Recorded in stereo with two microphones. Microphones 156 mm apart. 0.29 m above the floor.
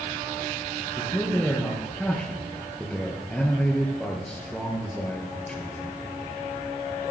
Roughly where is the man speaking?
Centre.